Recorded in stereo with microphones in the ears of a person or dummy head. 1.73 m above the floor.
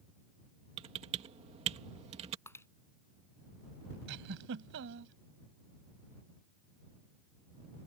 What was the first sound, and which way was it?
Typing on a keyboard, 35° right (ahead or behind).